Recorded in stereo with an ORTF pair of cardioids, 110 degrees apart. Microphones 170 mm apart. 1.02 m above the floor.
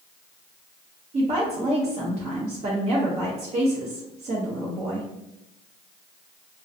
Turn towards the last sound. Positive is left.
turn(degrees=-40)